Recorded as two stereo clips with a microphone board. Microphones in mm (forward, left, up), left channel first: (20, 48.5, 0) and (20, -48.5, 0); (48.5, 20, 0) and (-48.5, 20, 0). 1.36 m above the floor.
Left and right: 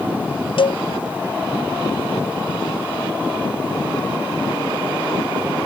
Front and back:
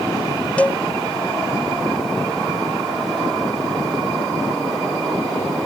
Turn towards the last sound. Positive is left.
turn(degrees=75)